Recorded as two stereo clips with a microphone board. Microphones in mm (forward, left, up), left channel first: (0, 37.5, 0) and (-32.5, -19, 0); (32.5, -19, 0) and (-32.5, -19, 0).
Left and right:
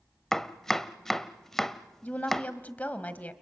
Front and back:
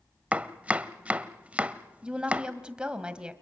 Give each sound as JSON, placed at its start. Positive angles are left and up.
{"t": 0.3, "sound": "chopping", "azimuth_deg": 140, "distance_m": 0.7}
{"t": 2.0, "sound": "a woman speaking", "azimuth_deg": 115, "distance_m": 1.6}